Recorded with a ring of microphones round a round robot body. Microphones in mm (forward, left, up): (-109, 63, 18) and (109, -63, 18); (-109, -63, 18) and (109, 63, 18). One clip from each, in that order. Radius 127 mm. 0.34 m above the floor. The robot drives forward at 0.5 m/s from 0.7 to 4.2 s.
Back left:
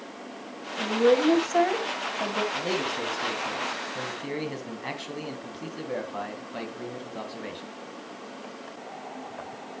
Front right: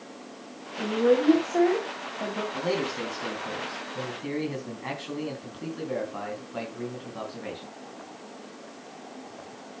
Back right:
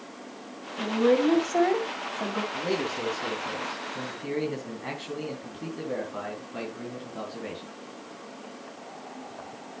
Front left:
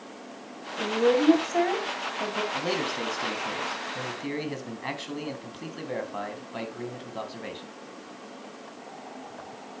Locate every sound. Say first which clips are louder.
0.8 s a woman speaking: back left 1 dB, even; 110° left, 2.5 m; by 2.4 s 130° left, 3 m
2.5 s a man speaking: even, front left 1 dB; 70° left, 3.5 m; by 7.7 s 85° left, 3 m